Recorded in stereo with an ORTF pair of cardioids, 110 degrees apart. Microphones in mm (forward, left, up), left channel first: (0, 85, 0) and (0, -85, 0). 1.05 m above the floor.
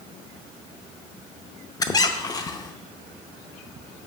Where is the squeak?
25° left, 0.5 m.